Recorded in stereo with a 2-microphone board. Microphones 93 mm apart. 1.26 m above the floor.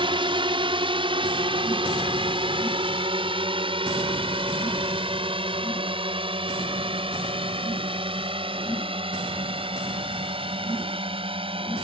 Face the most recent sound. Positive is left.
turn(degrees=-70)  # may be behind; listen again after turning